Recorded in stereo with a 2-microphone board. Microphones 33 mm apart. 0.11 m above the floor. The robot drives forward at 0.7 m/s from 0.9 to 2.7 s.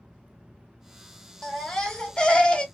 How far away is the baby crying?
About 1.5 m.